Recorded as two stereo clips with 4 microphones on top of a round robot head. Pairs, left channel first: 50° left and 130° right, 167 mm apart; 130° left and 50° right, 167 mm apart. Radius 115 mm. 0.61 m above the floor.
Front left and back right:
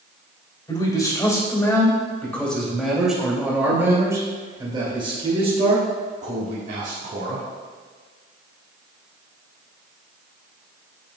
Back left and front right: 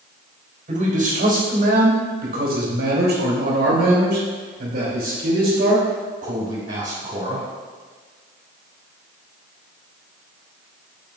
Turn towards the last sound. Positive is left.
turn(degrees=-100)